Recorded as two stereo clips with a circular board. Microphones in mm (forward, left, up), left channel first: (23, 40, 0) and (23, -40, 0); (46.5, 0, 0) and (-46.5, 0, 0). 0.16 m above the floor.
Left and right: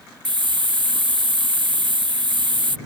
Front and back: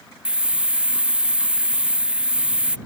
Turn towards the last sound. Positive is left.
turn(degrees=-100)